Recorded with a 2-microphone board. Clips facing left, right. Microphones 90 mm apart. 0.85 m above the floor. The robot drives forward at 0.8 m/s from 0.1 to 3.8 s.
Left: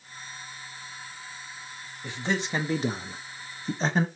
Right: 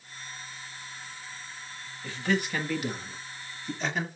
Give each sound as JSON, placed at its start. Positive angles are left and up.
{"t": 2.0, "sound": "a man speaking", "side_deg": 20, "distance_m": 1.3}